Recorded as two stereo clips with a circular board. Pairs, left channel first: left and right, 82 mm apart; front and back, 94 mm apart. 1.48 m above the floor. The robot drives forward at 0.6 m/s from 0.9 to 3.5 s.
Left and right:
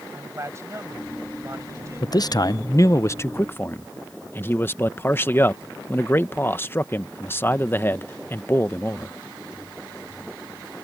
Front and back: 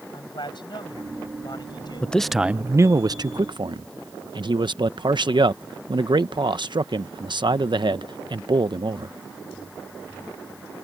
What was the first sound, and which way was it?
A man speaking, 35° right.